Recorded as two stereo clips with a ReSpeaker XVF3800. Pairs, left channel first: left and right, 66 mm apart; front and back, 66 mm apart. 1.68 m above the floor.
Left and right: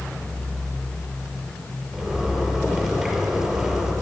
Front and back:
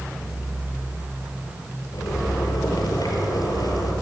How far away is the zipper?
About 5.5 m.